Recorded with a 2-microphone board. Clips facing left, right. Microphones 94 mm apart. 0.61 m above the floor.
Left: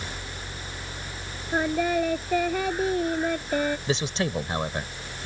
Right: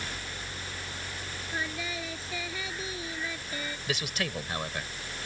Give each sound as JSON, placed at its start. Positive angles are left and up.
{"t": 1.5, "sound": "singing", "side_deg": 55}
{"t": 3.9, "sound": "a man speaking", "side_deg": 30}